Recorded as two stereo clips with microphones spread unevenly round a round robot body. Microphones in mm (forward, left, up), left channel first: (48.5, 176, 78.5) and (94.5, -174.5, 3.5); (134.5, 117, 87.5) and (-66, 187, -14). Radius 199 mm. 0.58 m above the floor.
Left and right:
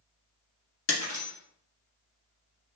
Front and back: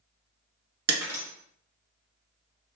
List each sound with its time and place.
0.9 s breaking glass: 150° left, 1.5 m